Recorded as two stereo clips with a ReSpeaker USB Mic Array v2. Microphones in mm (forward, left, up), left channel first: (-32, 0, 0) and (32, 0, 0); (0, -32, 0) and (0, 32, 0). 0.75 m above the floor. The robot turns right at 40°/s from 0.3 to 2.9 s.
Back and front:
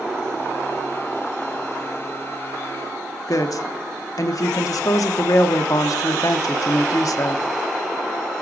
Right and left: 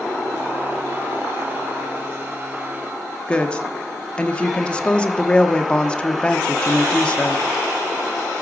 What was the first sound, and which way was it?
A woman speaking, 160° right.